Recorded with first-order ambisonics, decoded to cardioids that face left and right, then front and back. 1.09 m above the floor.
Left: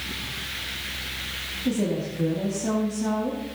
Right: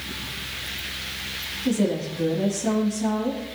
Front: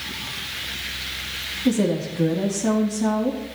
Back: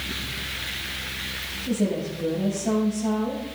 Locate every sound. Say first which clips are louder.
1.6 s a woman speaking: right 3 dB, front 5 dB; 5° right, 2.5 m